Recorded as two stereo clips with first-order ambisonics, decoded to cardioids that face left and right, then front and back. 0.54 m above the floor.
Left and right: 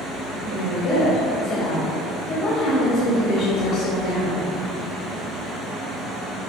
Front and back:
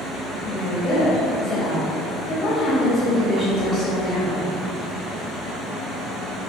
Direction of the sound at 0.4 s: 60° left.